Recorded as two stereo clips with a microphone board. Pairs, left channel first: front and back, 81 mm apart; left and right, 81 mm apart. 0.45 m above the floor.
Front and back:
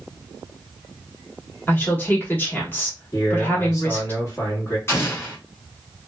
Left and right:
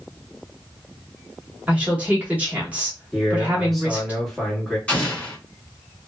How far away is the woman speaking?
About 0.9 m.